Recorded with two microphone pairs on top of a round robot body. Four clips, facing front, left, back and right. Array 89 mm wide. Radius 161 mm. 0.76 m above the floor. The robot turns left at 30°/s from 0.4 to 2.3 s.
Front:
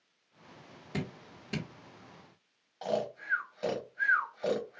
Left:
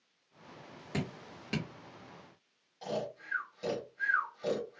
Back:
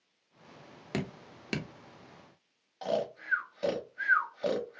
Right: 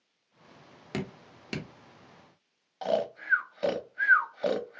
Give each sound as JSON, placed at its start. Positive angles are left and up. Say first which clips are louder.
{"t": 0.9, "sound": "dripping", "louder": "right 2 dB, back 2 dB", "azimuth_deg": -160, "distance_m": 1.3}
{"t": 2.8, "sound": "snoring", "louder": "right 8 dB, back 1 dB", "azimuth_deg": -85, "distance_m": 0.7}